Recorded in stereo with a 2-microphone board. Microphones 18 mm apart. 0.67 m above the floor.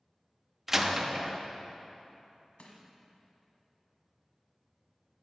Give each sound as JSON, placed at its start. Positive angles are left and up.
{"t": 0.7, "sound": "a door slam", "side_deg": -20, "distance_m": 0.6}
{"t": 2.6, "sound": "crushing", "side_deg": 80, "distance_m": 1.4}